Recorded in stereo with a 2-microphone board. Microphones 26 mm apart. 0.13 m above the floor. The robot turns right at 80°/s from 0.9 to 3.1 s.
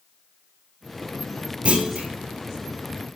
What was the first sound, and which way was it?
A clunk, 115° right.